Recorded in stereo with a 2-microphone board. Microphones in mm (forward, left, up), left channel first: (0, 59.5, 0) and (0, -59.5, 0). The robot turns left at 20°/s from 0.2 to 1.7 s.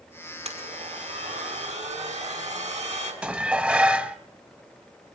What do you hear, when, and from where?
0.5 s a blender: 70° right (ahead or behind), 5.5 m; by 3.1 s 75° right (ahead or behind), 5.5 m
3.2 s dishes clattering: 10° right (ahead or behind), 1.1 m